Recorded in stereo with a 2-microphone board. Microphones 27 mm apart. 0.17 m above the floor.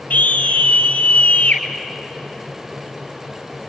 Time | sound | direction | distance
0.1 | a scream | 65° left (ahead or behind) | 3.5 m